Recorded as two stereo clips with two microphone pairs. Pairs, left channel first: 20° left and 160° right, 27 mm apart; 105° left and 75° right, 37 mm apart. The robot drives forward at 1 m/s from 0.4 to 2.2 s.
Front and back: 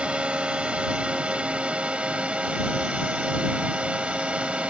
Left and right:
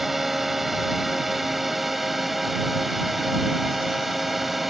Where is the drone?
155° right; by 4.7 s 160° right.